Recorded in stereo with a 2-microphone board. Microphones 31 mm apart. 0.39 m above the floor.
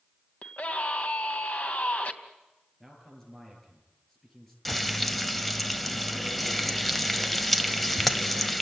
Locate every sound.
0.4 s a scream: 55° left (ahead or behind), 2.5 m
2.8 s a man speaking: 15° left (ahead or behind), 9 m
4.7 s frying: 10° left (ahead or behind), 1.2 m